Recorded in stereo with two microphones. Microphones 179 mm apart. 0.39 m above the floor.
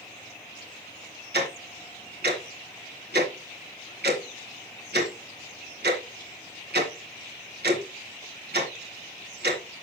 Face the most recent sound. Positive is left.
turn(degrees=-65)  # may be behind; listen again after turning